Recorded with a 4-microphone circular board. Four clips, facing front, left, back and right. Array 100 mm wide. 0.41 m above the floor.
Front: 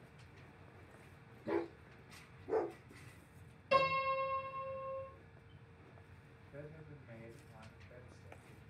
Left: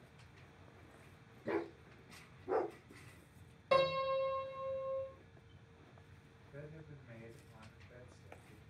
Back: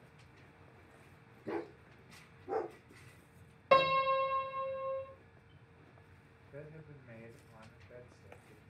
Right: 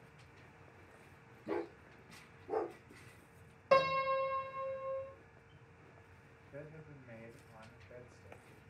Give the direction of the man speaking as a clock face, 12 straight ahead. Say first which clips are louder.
Right 2 dB, back 2 dB; 5 o'clock.